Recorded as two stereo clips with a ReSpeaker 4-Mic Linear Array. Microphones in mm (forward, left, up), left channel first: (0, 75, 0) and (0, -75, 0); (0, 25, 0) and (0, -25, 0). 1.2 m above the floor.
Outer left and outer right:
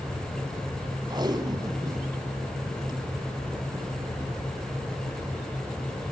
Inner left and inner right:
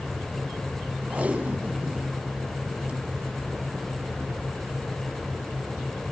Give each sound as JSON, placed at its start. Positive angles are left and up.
{"t": 1.1, "sound": "tape being pulled", "side_deg": -30, "distance_m": 3.0}